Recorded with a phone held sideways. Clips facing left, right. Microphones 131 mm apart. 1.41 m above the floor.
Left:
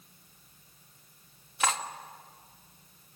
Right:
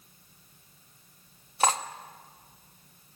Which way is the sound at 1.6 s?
35° right (ahead or behind).